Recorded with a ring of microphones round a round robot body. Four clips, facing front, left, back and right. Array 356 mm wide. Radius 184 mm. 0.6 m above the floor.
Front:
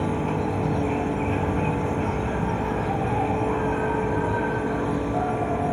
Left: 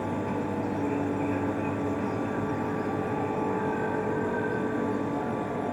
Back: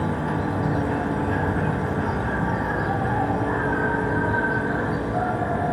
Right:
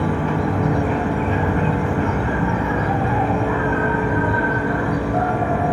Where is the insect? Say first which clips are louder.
Right 9 dB, even; 100° right.